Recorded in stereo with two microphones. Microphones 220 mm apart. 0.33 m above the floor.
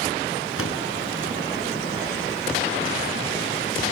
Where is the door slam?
75° left (ahead or behind), 3 m.